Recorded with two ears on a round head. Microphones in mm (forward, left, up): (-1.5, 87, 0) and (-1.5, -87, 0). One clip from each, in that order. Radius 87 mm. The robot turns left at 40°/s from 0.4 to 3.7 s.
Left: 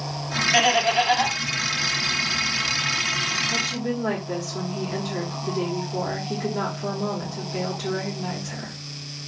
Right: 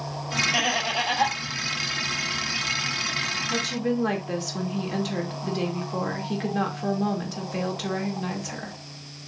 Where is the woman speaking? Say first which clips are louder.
Left 1 dB; 75° right (ahead or behind), 1.8 m; by 8.7 s 70° right (ahead or behind), 1.8 m.